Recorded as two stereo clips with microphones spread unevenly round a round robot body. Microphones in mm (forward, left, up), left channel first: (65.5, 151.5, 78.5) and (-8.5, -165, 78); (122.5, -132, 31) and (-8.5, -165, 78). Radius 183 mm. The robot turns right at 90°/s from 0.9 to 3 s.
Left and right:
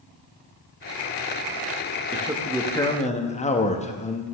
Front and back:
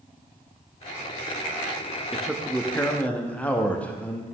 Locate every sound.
2.1 s a man speaking: 50° right, 0.9 m; by 4.2 s 30° left, 0.9 m